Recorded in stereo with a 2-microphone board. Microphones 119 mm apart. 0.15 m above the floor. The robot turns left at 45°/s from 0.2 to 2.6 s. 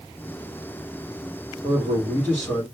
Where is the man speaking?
155° right, 3 m; by 2.6 s 160° left, 3 m.